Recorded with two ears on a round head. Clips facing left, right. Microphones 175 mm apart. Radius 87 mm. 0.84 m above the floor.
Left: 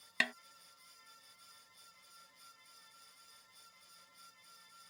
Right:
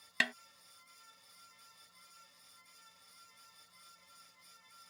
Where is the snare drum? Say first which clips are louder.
Right 1 dB; 5° right (ahead or behind).